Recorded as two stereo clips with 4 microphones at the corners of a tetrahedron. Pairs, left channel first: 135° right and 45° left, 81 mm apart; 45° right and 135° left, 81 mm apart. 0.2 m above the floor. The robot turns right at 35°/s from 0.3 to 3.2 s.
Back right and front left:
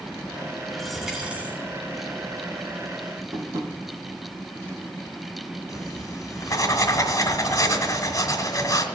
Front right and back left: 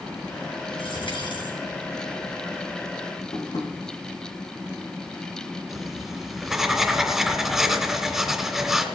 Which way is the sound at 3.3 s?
10° right.